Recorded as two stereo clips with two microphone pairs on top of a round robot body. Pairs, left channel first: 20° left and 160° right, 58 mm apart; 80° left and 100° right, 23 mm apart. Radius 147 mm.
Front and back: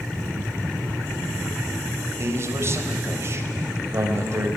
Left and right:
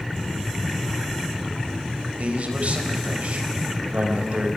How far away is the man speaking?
About 4 m.